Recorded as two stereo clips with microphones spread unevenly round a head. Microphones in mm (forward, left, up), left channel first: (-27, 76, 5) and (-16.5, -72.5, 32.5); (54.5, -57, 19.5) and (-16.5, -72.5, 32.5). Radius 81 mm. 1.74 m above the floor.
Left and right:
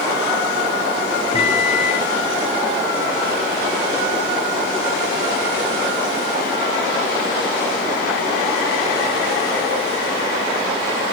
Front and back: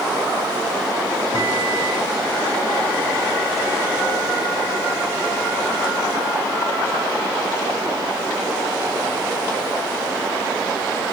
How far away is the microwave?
About 0.7 m.